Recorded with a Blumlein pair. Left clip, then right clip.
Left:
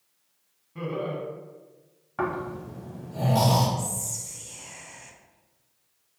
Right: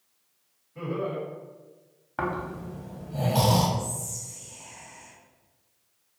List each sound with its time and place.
0.8 s laughter: 30° left, 1.3 m
2.2 s snoring: 15° right, 0.7 m
3.8 s whispering: 55° left, 0.6 m